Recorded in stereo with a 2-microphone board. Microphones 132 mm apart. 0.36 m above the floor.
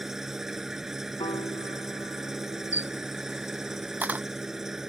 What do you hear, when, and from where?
0.0 s an engine running: 5° right (ahead or behind)
1.2 s a piano: 40° left (ahead or behind)
2.7 s a camera shutter: 10° right (ahead or behind)